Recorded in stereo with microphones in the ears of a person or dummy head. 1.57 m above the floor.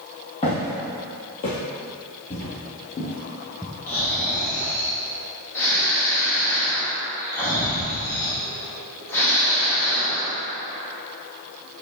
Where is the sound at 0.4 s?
30° left (ahead or behind), 2 m; by 1.6 s 35° left (ahead or behind), 1.9 m.